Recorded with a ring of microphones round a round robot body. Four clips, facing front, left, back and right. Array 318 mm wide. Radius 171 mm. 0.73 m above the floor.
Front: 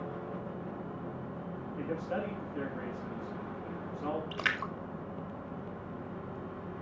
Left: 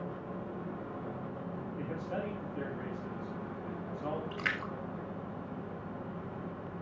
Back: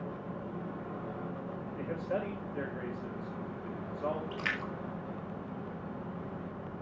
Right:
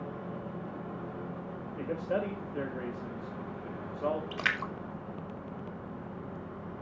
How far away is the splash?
About 3 m.